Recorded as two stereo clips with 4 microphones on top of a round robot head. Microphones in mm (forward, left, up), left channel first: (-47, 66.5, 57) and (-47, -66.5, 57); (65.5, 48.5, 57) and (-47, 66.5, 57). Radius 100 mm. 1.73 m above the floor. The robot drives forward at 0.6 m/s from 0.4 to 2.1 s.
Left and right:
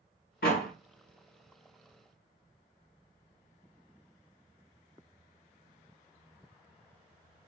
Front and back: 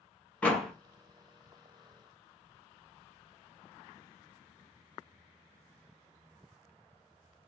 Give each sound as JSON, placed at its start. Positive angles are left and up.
{"t": 0.4, "sound": "a door slam", "azimuth_deg": 70, "distance_m": 1.0}